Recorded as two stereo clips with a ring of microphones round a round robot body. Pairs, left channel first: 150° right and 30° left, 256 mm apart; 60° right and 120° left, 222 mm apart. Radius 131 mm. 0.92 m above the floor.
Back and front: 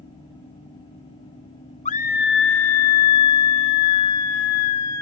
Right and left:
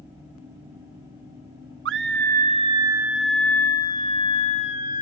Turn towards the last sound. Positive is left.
turn(degrees=-120)